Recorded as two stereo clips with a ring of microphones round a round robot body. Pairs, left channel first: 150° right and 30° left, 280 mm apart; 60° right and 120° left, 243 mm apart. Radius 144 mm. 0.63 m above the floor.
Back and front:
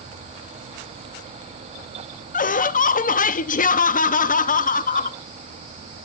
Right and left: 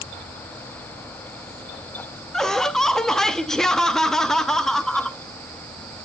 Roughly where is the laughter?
Behind right.